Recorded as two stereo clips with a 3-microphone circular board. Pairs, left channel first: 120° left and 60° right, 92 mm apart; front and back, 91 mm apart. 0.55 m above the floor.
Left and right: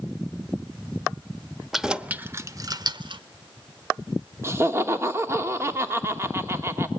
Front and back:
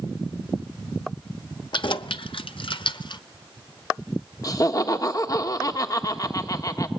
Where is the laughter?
15° right, 1.4 m.